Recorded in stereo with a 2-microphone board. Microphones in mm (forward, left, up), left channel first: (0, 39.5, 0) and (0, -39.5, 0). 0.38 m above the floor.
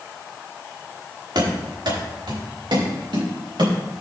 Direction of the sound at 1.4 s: 70° right (ahead or behind).